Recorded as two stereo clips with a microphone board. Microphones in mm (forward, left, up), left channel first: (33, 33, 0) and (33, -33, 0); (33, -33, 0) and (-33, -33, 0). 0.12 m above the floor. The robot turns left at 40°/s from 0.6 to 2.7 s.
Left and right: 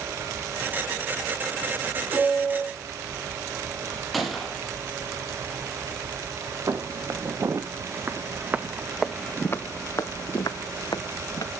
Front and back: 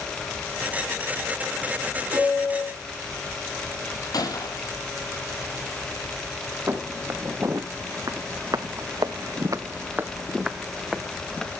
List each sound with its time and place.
2.1 s a piano: 170° right, 6.5 m; by 2.8 s 170° left, 6.5 m
4.1 s a gunshot: straight ahead, 2.5 m
6.7 s footsteps: 130° right, 2.5 m; by 11.5 s 90° left, 2.0 m